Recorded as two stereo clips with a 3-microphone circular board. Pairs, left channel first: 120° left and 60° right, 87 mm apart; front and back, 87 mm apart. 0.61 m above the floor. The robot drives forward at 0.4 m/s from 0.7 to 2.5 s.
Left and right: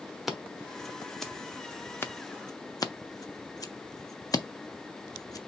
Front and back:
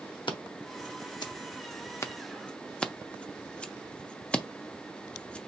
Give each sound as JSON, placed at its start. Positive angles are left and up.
{"t": 0.3, "sound": "scissors", "azimuth_deg": 30, "distance_m": 1.0}